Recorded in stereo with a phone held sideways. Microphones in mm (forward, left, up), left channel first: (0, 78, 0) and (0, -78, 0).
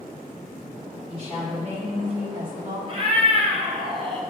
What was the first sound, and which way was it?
A woman speaking, 40° right (ahead or behind).